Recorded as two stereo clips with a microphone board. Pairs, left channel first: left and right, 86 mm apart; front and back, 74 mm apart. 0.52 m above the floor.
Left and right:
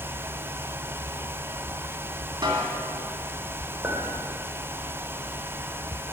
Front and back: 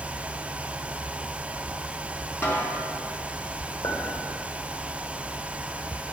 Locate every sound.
2.4 s a snare drum: 55° right, 2 m
3.8 s a clink: 20° right, 1.6 m